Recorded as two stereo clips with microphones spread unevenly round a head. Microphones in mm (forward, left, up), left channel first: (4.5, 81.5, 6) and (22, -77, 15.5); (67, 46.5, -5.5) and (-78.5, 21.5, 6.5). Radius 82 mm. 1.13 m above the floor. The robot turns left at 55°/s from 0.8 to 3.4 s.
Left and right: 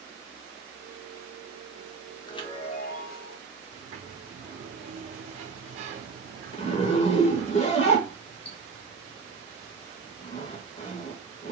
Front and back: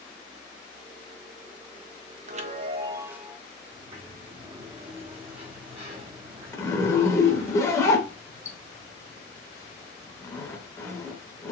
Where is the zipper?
75° left, 0.9 m.